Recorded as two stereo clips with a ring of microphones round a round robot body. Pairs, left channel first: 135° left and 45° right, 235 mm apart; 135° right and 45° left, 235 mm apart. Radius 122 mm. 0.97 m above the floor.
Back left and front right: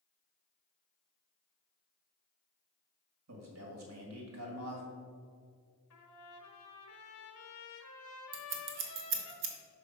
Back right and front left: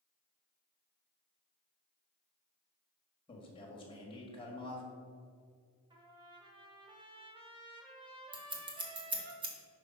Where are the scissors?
20° right, 0.9 m.